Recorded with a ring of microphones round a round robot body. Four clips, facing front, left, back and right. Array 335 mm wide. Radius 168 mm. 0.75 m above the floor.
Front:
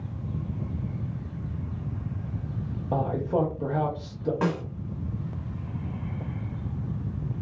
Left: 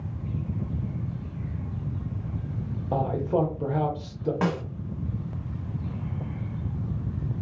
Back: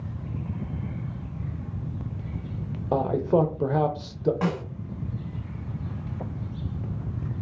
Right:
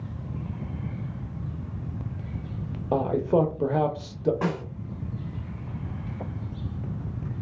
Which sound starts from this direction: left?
A snare drum, at 4.4 s.